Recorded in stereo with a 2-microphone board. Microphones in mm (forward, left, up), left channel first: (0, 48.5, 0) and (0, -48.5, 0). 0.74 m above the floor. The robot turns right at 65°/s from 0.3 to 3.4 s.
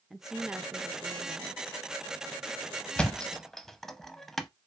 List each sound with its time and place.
0.1 s a woman speaking: 175° right, 0.6 m; by 1.6 s 90° right, 0.6 m
3.0 s a thud: 10° left (ahead or behind), 0.6 m; by 4.5 s 5° left (ahead or behind), 0.6 m